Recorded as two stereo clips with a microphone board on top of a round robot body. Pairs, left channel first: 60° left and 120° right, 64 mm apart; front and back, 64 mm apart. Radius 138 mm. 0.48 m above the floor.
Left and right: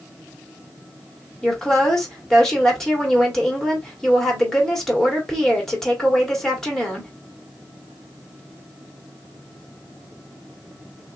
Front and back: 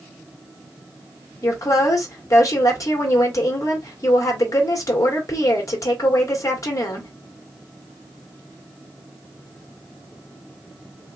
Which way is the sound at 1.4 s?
20° right.